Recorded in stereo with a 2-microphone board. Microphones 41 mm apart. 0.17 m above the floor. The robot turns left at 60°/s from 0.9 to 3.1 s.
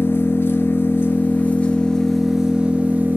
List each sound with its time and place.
0.0 s an engine running: 80° left, 0.9 m; by 3.2 s 50° right, 0.9 m